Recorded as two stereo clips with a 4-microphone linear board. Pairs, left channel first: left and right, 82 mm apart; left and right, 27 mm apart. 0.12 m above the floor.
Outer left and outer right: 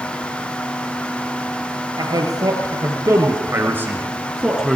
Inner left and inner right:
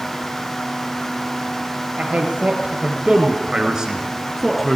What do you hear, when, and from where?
2.0 s a man speaking: 55° right (ahead or behind), 2.5 m; by 4.8 s centre (ahead or behind), 1.8 m